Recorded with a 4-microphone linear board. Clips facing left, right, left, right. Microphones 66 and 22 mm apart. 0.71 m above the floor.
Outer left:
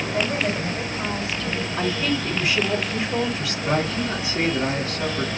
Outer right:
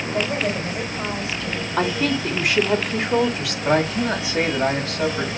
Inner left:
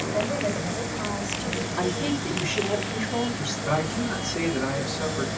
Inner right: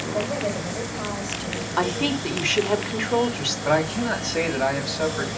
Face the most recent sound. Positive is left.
turn(degrees=-80)